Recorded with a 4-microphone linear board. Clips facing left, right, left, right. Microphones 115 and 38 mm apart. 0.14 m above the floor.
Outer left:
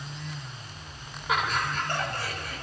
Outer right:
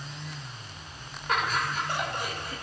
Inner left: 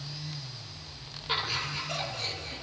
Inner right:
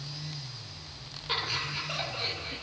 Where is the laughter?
5° left (ahead or behind), 2 m; by 2.6 s 30° right (ahead or behind), 1.9 m.